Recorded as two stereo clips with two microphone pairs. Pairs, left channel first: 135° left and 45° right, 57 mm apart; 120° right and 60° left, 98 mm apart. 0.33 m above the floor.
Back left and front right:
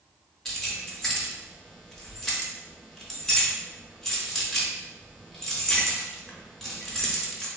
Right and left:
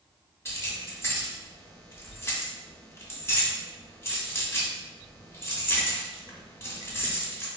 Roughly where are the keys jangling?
Behind right.